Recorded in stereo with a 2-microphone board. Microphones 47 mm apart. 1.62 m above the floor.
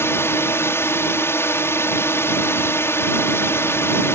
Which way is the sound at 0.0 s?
75° left (ahead or behind).